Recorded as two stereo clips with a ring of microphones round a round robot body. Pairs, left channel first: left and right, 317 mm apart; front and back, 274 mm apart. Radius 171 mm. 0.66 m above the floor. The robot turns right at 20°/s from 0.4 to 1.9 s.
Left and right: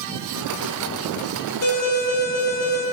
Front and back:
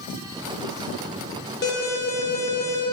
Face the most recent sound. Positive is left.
turn(degrees=55)